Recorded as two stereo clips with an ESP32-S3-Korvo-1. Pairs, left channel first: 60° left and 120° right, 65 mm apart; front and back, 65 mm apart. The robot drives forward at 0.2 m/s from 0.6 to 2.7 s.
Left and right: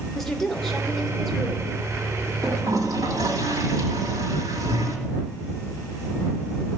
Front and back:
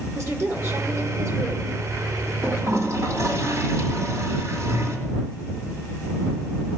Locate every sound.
0.1 s a woman speaking: 145° left, 2 m; by 1.7 s 150° left, 2 m
2.4 s a toilet flushing: 140° right, 2 m